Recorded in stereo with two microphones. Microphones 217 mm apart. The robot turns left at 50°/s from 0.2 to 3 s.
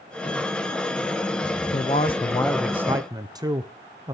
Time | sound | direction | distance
1.7 | a man speaking | 45° left | 0.6 m